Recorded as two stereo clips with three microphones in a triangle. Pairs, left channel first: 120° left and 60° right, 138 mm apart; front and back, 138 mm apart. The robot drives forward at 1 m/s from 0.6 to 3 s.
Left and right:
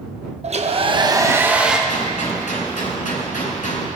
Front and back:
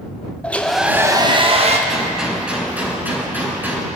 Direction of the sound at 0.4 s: 80° right.